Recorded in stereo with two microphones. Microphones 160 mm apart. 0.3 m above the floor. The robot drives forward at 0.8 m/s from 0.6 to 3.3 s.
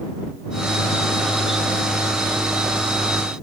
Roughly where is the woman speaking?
I don't hear a woman speaking.